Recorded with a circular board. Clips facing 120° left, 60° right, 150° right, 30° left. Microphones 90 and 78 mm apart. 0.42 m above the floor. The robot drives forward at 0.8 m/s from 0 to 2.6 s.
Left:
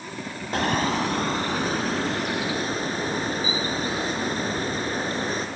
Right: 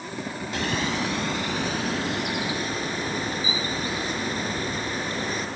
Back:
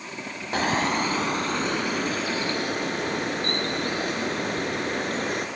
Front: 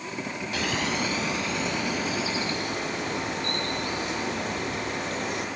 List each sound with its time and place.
0.5 s a bird: 160° left, 1.0 m; by 5.5 s 175° left, 2.5 m